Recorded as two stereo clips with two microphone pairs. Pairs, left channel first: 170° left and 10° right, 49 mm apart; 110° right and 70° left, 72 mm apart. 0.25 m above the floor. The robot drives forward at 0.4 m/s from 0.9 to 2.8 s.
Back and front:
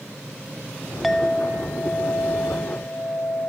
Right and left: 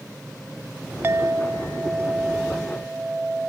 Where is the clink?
80° left, 0.7 m; by 3.5 s 150° left, 0.9 m.